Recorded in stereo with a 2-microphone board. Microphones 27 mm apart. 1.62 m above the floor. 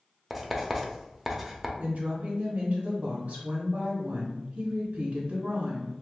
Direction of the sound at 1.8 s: 55° right (ahead or behind).